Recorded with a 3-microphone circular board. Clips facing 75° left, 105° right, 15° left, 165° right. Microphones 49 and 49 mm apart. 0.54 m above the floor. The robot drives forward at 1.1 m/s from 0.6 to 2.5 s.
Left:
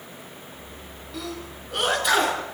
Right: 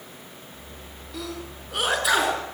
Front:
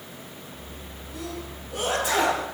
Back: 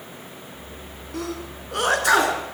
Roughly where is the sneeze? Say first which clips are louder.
Even, back 5 dB; behind.